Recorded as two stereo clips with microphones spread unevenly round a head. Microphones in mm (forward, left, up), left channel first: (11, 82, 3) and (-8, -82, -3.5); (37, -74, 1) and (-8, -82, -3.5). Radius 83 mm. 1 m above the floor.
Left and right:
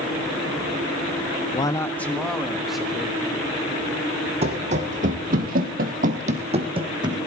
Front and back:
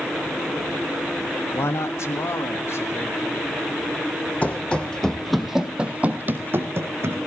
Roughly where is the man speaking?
Ahead left.